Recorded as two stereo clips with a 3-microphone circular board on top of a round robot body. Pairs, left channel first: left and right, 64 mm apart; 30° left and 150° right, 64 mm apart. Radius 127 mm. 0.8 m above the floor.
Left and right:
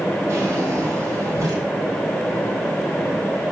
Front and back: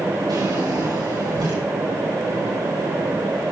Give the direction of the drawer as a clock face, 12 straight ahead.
4 o'clock.